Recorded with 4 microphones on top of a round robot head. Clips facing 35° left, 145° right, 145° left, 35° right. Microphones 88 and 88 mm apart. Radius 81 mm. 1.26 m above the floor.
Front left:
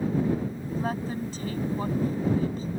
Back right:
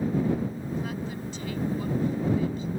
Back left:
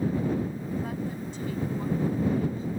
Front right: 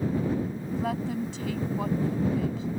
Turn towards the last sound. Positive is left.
turn(degrees=-20)